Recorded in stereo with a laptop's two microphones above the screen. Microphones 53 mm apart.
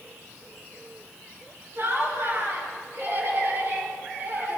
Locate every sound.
1.8 s laughter: 55° right (ahead or behind), 6 m; by 4.6 s 45° right (ahead or behind), 7 m